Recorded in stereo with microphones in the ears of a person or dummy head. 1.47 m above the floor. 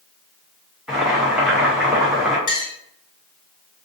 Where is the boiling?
Centre (ahead or behind), 0.6 m.